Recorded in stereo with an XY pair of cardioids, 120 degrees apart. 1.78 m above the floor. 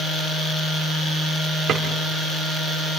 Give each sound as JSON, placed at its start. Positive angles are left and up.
{"t": 1.7, "sound": "a drawer", "azimuth_deg": -65, "distance_m": 3.5}